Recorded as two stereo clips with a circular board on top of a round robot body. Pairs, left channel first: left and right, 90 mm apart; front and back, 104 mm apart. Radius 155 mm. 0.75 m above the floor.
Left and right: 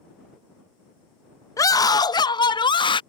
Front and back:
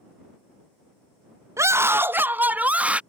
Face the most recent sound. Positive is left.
turn(degrees=100)